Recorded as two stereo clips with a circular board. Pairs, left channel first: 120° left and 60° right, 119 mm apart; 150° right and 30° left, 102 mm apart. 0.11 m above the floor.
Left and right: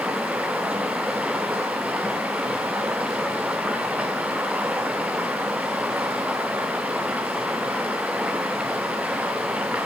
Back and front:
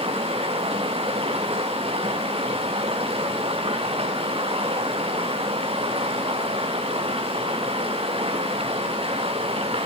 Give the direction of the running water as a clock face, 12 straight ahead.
11 o'clock.